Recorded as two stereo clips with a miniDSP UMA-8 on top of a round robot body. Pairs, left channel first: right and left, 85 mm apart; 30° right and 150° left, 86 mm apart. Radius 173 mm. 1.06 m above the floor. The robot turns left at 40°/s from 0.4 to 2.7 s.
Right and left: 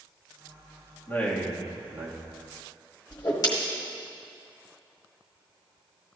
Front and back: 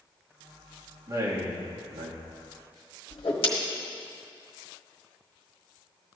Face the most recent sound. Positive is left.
turn(degrees=-45)